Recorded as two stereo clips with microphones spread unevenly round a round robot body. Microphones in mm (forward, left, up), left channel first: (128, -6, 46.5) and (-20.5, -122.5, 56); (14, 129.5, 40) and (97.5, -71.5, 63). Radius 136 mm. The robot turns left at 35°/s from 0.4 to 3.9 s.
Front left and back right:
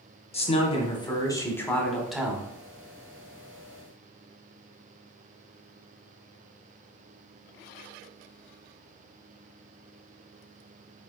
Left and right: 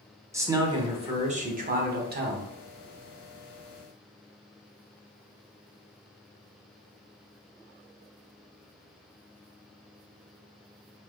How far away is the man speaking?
About 1.2 m.